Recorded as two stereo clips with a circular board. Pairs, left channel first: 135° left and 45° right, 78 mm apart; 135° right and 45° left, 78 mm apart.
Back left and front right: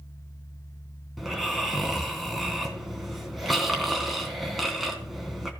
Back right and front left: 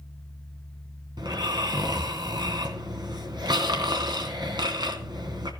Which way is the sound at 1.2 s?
45° left.